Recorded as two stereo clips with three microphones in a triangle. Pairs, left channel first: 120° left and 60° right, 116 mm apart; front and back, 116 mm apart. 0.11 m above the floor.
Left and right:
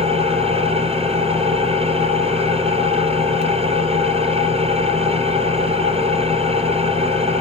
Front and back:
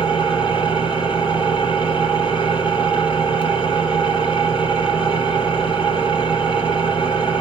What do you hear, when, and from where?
0.0 s an engine running: 35° right, 2 m